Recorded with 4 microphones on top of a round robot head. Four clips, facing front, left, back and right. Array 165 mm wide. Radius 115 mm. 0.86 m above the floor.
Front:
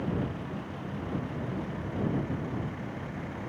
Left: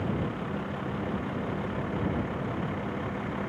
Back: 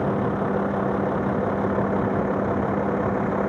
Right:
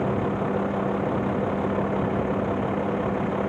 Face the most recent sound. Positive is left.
turn(degrees=-150)